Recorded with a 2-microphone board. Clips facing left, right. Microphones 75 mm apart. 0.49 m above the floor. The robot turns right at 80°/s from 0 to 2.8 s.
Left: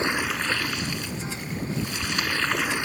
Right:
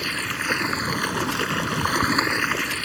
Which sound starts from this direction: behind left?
Running water, at 0.0 s.